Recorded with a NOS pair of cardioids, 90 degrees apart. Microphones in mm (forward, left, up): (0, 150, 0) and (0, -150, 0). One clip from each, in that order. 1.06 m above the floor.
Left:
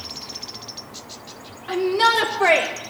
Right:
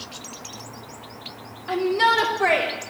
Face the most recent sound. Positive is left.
turn(degrees=25)